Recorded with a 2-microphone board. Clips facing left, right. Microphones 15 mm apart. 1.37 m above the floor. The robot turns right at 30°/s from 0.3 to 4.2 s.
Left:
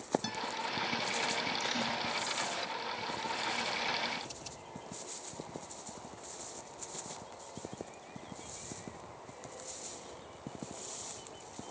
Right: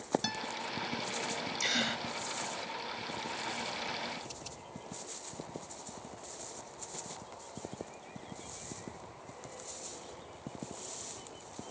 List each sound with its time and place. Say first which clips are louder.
0.2 s a guitar: right 1 dB; 20° right (ahead or behind); by 0.5 s 10° right (ahead or behind)
1.6 s a gasp: right 2 dB; 35° right (ahead or behind); by 2.0 s 50° right (ahead or behind)